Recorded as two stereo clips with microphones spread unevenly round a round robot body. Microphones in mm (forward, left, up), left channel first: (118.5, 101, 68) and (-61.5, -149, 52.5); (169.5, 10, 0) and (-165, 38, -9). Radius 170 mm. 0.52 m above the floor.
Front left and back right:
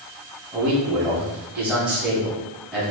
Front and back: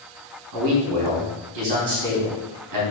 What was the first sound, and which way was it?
A man speaking, 150° left.